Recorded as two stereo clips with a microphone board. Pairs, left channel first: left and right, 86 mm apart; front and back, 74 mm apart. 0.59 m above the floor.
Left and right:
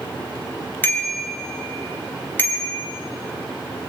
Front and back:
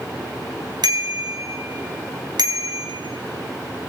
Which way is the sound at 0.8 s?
155° left.